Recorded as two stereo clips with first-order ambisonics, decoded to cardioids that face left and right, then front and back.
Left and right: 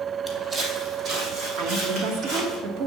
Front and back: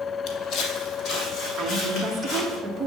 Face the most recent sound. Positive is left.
turn(degrees=-120)